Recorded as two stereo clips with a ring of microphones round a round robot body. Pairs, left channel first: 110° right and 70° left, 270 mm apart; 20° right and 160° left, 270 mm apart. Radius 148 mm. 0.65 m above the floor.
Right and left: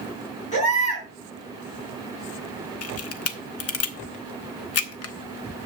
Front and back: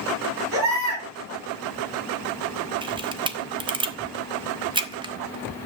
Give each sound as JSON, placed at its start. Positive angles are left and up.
{"t": 0.5, "sound": "a baby crying", "azimuth_deg": -175, "distance_m": 5.5}
{"t": 2.8, "sound": "a camera shutter", "azimuth_deg": -130, "distance_m": 1.0}